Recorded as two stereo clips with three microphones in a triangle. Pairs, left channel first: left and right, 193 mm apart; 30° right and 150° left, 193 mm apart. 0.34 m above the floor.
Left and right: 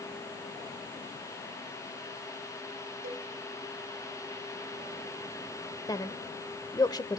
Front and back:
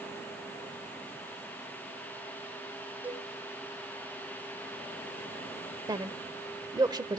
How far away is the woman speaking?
About 0.9 m.